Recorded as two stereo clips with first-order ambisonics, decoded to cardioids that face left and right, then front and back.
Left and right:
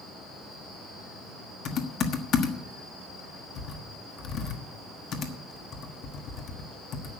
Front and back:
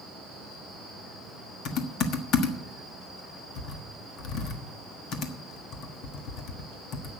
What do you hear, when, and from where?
1.6 s typing on a keyboard: 40° left, 1.4 m